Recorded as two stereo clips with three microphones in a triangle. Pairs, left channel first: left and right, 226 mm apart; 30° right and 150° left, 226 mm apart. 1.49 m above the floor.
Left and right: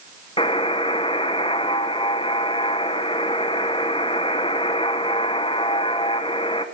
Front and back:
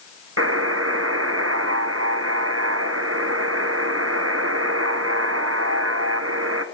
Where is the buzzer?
155° left, 1.1 m.